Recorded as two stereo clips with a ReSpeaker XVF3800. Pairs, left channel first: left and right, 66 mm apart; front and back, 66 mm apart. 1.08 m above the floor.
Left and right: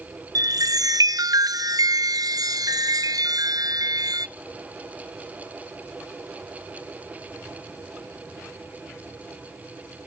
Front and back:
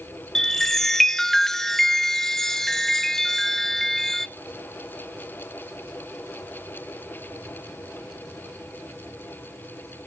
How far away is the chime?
About 0.5 m.